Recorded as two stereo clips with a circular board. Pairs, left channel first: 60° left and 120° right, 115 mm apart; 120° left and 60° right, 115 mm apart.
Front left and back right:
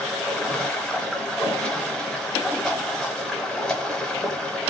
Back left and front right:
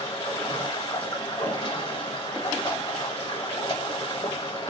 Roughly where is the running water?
Behind left.